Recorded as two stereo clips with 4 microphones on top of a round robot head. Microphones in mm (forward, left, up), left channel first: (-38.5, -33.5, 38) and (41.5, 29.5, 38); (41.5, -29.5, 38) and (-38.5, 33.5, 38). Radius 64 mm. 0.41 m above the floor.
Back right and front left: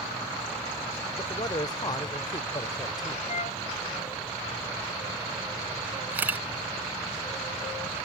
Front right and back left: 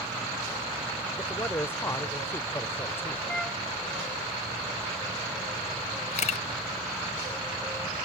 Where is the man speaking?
100° right.